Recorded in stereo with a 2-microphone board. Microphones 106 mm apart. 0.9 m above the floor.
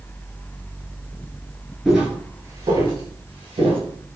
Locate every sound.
1.9 s footsteps: centre (ahead or behind), 0.9 m; by 3.8 s 60° right (ahead or behind), 1.5 m